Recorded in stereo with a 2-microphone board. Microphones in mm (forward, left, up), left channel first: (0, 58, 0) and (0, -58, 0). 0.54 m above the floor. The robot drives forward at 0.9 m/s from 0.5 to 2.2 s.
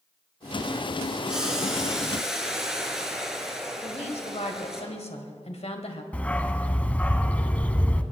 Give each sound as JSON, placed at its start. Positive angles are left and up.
{"t": 1.3, "sound": "boiling", "side_deg": -5, "distance_m": 2.0}
{"t": 3.8, "sound": "a woman speaking", "side_deg": 65, "distance_m": 2.0}
{"t": 6.1, "sound": "a dog barking", "side_deg": 10, "distance_m": 0.9}